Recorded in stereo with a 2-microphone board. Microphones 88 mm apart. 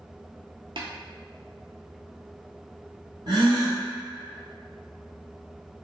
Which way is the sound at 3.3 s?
60° right (ahead or behind).